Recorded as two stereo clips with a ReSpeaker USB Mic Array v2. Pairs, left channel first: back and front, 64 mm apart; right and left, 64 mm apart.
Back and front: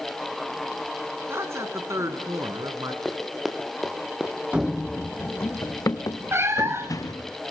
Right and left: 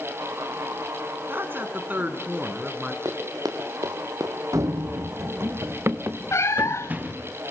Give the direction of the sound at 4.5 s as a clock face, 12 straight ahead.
10 o'clock.